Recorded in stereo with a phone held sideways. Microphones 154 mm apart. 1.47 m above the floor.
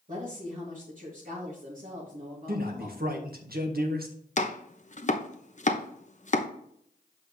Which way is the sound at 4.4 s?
50° left (ahead or behind).